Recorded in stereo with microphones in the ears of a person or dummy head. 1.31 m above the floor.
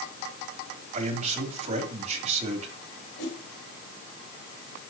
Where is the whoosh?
65° left (ahead or behind), 4 m.